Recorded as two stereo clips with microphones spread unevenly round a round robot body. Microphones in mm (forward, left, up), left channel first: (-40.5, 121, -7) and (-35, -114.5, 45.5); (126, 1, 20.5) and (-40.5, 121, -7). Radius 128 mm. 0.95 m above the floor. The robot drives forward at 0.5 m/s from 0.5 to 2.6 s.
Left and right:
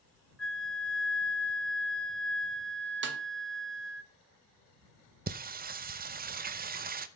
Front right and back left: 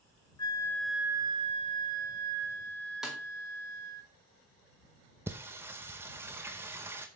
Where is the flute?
35° left, 0.5 m; by 4.0 s 170° left, 1.0 m.